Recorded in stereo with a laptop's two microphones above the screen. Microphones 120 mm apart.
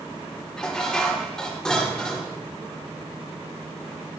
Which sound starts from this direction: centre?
Dishes clattering, at 0.6 s.